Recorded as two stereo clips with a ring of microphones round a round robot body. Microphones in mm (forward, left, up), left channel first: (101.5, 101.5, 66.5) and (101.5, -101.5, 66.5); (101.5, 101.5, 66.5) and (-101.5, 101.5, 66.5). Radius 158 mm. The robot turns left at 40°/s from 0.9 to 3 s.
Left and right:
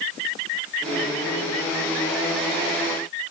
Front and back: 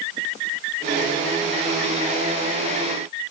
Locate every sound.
Only background noise.